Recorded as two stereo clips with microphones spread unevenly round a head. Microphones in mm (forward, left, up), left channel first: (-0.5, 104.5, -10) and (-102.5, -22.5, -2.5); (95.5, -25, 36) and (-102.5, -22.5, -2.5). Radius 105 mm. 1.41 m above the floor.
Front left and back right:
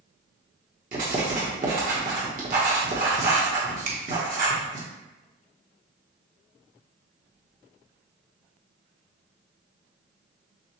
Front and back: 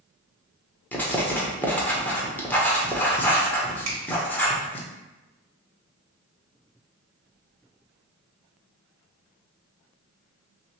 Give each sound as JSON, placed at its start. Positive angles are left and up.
{"t": 0.9, "sound": "writing", "azimuth_deg": -80, "distance_m": 0.8}
{"t": 3.9, "sound": "a finger snap", "azimuth_deg": -160, "distance_m": 1.1}